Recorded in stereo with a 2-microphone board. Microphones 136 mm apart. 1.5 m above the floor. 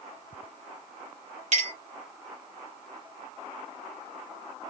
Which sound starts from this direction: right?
A clink, at 1.5 s.